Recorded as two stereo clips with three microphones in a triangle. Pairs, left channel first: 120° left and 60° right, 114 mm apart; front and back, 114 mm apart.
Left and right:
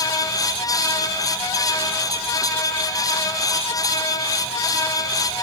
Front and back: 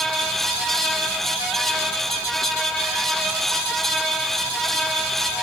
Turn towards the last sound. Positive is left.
No sound to turn to.